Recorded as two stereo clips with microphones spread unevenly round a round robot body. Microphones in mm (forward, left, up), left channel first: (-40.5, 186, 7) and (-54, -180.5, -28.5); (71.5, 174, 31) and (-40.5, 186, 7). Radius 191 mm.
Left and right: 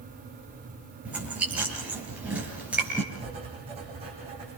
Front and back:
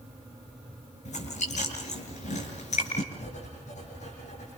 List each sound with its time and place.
1.1 s chewing: 5° right, 6.5 m
3.1 s writing: 15° right, 8.5 m